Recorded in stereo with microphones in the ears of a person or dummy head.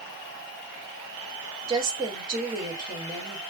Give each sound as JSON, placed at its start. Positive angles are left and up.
{"t": 1.7, "sound": "a woman speaking", "side_deg": -20, "distance_m": 3.0}